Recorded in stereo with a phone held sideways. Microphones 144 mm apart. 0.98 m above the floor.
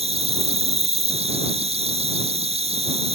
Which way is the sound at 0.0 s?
45° right (ahead or behind).